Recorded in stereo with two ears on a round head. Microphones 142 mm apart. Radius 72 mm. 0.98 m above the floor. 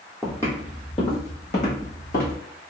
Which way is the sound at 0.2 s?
10° left (ahead or behind).